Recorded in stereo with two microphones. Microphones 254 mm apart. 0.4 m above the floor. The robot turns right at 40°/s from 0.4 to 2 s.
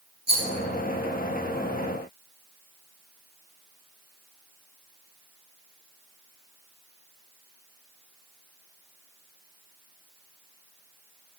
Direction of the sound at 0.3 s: 40° right (ahead or behind).